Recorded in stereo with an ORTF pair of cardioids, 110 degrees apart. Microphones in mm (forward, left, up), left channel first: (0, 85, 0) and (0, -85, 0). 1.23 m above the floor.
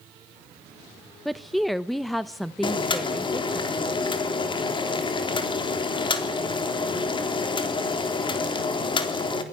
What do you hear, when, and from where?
1.2 s a woman speaking: straight ahead, 0.9 m
2.6 s boiling: 30° left, 3.5 m